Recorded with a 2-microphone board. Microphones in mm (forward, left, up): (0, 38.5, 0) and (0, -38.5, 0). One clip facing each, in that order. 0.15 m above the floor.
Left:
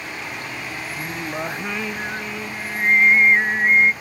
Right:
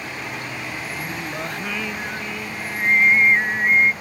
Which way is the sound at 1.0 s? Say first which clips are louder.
Left 4 dB; 15° left (ahead or behind).